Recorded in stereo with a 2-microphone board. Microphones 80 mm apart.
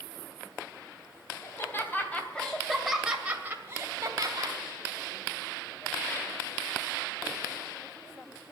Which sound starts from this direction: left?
Laughter, at 1.4 s.